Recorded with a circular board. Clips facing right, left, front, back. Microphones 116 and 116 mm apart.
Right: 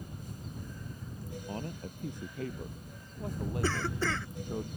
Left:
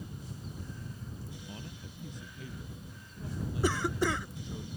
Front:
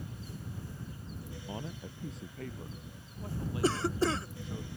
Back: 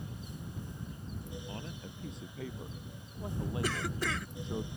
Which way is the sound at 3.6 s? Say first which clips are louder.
Left 4 dB, front 10 dB; 25° left.